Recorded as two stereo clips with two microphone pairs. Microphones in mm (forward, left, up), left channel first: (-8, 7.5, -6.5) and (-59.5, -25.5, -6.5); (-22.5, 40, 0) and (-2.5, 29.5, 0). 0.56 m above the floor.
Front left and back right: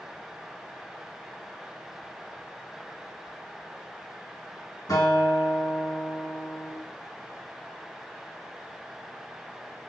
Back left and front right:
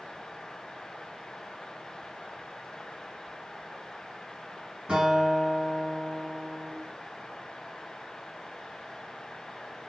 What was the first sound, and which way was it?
A guitar, 15° left.